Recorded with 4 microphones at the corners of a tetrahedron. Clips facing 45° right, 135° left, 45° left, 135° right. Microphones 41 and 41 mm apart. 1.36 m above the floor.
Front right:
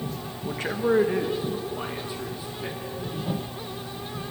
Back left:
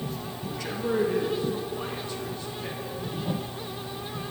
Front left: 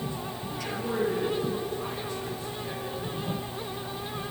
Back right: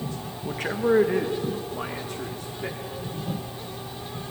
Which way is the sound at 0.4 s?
90° right.